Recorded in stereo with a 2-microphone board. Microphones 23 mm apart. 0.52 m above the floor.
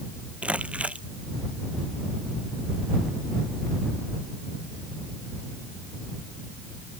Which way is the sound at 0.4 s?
85° right.